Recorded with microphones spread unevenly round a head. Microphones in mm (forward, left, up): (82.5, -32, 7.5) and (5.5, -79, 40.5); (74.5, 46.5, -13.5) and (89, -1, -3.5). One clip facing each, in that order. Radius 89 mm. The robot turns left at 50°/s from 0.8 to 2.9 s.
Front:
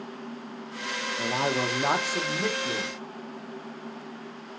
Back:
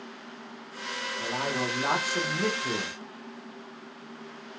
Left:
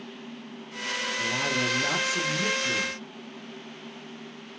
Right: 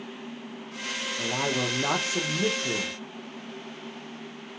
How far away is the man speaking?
About 0.8 m.